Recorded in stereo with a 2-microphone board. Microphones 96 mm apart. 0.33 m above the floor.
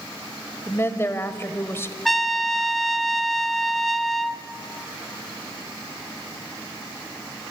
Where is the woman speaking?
25° left (ahead or behind), 1.4 m.